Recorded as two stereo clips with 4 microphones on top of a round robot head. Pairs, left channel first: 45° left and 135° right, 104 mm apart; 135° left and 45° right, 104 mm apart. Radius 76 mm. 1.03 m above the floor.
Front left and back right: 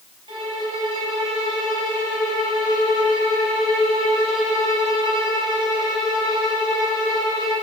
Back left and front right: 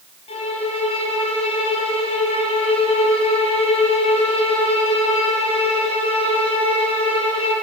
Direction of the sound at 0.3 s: 175° left.